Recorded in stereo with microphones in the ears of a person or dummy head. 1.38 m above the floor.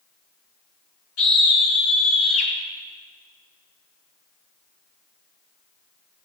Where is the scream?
85° left, 3 m; by 2.5 s 70° left (ahead or behind), 3.5 m.